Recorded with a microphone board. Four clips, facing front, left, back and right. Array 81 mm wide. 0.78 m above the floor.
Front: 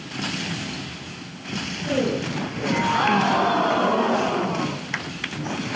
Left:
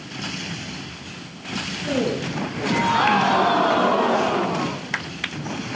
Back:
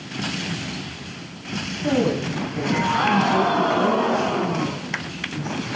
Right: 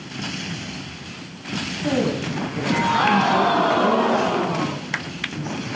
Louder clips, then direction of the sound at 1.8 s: Right 1 dB, back 3 dB; 140° right.